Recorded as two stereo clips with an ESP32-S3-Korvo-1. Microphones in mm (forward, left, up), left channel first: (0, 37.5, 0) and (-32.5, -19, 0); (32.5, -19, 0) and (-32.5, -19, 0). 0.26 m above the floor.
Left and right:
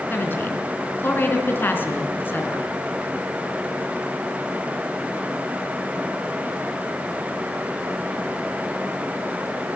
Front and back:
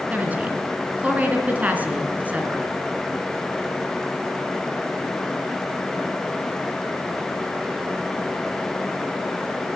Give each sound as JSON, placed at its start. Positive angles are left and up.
{"t": 0.1, "sound": "a woman speaking", "azimuth_deg": 115, "distance_m": 4.0}